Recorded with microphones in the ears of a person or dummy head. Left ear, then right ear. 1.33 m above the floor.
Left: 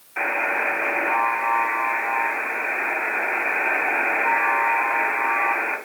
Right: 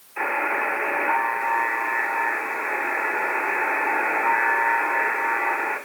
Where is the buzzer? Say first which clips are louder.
Left 1 dB; 70° left (ahead or behind), 7.5 m.